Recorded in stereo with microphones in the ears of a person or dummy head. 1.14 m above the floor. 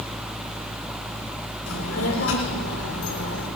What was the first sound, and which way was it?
A child speaking, 85° left.